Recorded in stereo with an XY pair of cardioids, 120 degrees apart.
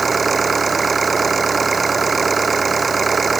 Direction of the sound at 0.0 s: 25° right.